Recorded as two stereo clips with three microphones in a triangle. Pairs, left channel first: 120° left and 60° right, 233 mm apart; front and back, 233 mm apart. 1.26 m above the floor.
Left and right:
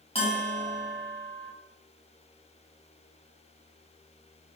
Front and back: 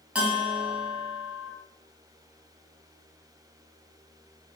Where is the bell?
100° left, 1.2 m.